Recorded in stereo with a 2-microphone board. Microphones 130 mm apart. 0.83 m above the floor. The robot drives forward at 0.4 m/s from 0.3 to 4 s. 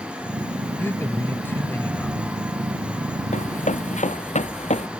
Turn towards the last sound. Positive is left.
turn(degrees=65)  # may be behind; listen again after turning